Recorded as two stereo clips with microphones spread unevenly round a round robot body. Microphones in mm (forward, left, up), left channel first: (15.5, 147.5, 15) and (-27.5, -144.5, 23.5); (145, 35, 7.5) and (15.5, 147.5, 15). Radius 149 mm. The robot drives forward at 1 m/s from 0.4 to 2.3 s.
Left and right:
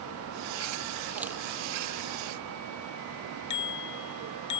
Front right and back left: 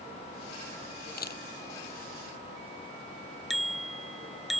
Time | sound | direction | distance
1.2 | a camera shutter | 15° right | ?
3.5 | a bicycle bell | 50° left | ?